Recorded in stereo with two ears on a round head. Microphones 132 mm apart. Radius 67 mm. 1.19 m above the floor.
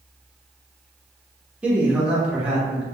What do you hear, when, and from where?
1.6 s a man speaking: 10° right (ahead or behind), 0.9 m